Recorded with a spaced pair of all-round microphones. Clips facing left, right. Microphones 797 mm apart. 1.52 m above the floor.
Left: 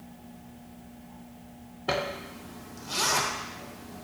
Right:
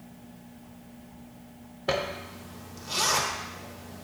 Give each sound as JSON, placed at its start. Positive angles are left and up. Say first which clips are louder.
{"t": 1.9, "sound": "a zipper", "louder": "right 1 dB", "side_deg": -15, "distance_m": 0.7}